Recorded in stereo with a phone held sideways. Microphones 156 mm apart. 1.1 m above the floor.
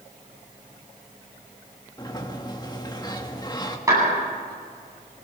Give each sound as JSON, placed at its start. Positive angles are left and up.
{"t": 2.0, "sound": "a sliding door", "side_deg": 25, "distance_m": 1.7}
{"t": 3.9, "sound": "a clap", "side_deg": -20, "distance_m": 9.5}